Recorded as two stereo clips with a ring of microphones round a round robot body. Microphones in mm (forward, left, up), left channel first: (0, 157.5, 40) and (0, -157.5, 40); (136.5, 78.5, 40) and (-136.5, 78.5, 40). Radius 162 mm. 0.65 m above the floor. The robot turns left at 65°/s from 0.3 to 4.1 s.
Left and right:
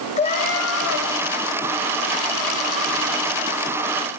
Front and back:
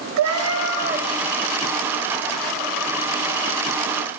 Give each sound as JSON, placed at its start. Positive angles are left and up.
{"t": 0.2, "sound": "a cat meowing", "azimuth_deg": 160, "distance_m": 2.0}